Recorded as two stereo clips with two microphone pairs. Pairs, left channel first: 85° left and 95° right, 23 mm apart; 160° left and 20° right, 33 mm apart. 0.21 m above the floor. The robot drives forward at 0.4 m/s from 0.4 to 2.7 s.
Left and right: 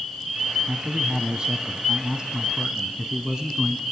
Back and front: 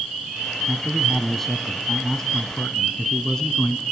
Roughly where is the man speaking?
Right.